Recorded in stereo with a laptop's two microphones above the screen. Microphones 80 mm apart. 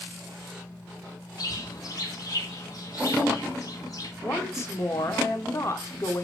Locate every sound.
1.4 s a bird: 50° left (ahead or behind), 1.6 m
4.2 s a woman speaking: 40° left (ahead or behind), 2 m